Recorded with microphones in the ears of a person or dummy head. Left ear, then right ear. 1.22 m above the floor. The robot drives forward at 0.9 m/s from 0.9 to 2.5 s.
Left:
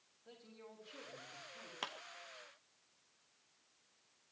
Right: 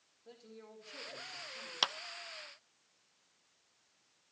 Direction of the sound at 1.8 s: 40° right (ahead or behind).